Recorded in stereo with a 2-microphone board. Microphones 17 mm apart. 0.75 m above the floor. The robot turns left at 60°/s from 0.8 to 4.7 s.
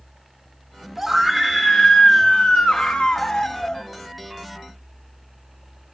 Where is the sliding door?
I don't hear a sliding door.